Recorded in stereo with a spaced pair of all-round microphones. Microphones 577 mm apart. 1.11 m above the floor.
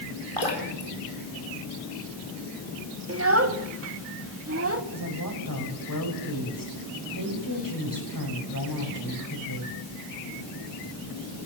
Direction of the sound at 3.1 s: 25° right (ahead or behind).